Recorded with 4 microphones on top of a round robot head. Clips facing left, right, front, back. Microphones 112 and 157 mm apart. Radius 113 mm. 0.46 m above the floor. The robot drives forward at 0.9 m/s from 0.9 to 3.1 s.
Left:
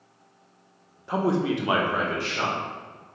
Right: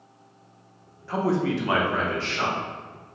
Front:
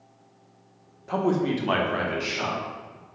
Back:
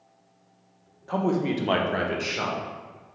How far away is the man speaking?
About 0.7 m.